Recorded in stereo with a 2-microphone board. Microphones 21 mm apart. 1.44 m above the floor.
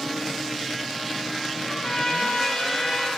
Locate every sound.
1.6 s a trumpet: 50° left (ahead or behind), 3 m